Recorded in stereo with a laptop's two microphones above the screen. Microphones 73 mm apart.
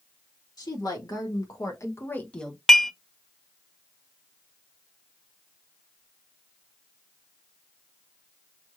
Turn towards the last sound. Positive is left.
turn(degrees=5)  # may be behind; listen again after turning